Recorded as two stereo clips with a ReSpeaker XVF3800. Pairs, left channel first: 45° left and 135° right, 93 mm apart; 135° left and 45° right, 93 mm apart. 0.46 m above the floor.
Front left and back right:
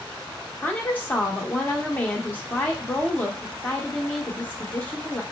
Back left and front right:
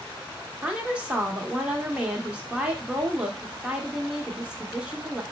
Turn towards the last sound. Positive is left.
turn(degrees=15)